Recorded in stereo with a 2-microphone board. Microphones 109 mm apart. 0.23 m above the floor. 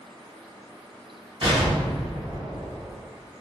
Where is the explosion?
50° right (ahead or behind), 1.7 m.